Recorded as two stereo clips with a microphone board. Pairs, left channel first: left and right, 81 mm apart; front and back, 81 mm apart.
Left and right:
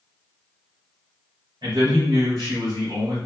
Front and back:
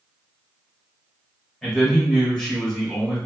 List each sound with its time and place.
1.6 s a man speaking: 80° right, 1.4 m